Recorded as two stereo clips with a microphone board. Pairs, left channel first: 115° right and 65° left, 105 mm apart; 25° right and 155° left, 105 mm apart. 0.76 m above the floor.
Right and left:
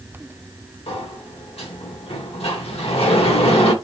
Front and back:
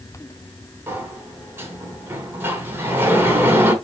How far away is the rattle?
I don't hear a rattle.